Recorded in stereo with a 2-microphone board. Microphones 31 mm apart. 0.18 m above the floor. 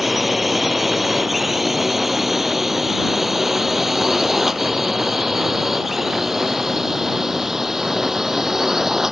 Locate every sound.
0.0 s a drone: 5° right (ahead or behind); by 9.1 s 15° right (ahead or behind)